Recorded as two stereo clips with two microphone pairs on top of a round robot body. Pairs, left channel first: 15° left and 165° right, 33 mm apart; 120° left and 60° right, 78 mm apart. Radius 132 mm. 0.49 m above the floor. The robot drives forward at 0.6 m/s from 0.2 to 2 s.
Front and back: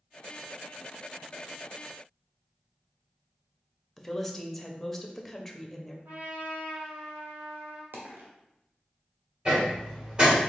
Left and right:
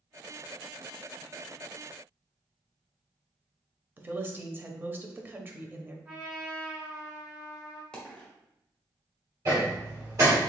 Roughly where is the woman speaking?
Ahead right.